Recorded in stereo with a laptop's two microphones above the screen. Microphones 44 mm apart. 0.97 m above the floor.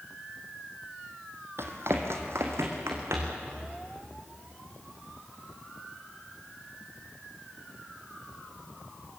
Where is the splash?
I don't hear a splash.